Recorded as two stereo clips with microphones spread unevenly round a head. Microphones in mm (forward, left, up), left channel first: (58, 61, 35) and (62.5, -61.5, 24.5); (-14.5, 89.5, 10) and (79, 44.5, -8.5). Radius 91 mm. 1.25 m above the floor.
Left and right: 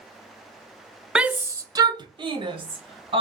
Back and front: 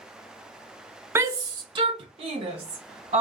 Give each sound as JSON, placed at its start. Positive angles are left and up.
{"t": 1.1, "sound": "a shout", "azimuth_deg": -15, "distance_m": 0.6}